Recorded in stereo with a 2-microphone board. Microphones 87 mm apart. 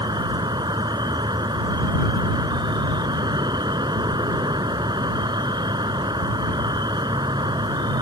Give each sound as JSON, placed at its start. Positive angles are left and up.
{"t": 0.0, "sound": "an insect", "side_deg": -55}